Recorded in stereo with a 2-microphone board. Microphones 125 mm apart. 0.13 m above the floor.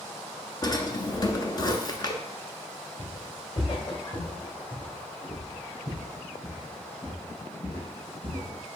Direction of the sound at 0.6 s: 35° left (ahead or behind).